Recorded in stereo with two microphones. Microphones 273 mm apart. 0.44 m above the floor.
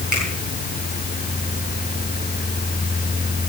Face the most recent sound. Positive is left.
turn(degrees=-80)